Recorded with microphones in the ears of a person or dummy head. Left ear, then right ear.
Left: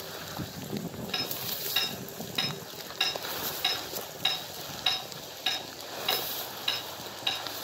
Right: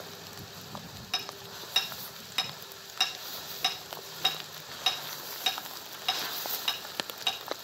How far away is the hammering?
About 1.3 m.